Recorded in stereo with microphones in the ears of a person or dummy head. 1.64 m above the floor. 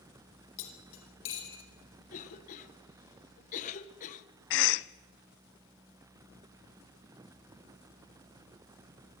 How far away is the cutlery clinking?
About 4.5 m.